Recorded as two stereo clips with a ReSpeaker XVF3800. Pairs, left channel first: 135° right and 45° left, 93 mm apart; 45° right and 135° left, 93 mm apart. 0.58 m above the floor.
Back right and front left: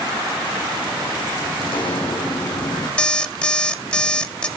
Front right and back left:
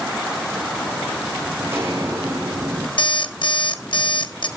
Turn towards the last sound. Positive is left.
turn(degrees=-55)